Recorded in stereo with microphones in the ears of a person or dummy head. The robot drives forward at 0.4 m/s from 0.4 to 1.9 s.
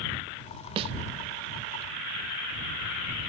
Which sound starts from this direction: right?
A snare drum, at 0.8 s.